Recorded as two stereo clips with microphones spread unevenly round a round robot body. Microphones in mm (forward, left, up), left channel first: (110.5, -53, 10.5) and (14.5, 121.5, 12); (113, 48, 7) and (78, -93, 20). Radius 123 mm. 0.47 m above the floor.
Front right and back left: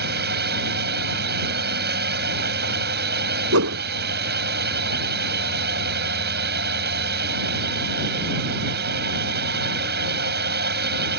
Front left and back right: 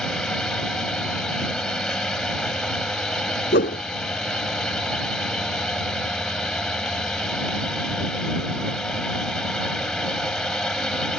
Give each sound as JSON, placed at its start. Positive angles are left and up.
{"t": 0.0, "sound": "a drone", "azimuth_deg": 160}
{"t": 3.5, "sound": "a whoosh", "azimuth_deg": 115}